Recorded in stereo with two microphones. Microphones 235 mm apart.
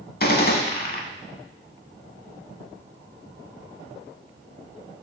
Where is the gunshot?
40° left (ahead or behind), 0.6 m.